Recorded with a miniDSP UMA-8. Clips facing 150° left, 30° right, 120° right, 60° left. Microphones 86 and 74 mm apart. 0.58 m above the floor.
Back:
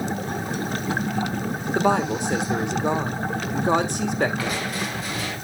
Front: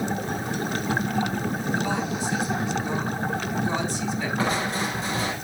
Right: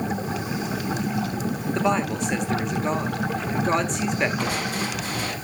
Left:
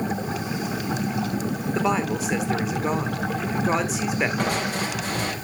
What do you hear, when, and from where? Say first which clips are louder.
1.8 s a woman speaking: back 6 dB, even; 145° left, 1.7 m
4.4 s crushing: front 2 dB, left 1 dB; 30° left, 4 m